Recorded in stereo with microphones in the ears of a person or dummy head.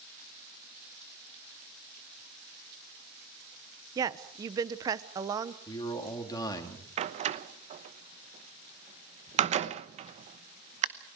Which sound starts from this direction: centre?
A woman speaking, at 4.0 s.